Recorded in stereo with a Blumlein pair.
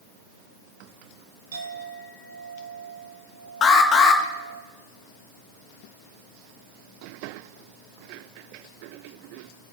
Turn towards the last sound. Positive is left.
turn(degrees=25)